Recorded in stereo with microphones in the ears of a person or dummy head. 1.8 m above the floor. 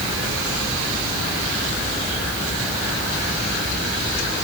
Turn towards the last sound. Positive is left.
No sound to turn to.